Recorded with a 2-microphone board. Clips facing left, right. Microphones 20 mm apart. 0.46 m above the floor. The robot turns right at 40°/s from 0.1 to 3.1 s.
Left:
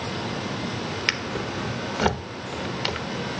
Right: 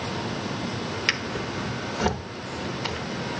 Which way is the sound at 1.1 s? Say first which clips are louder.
Even; 5° left (ahead or behind).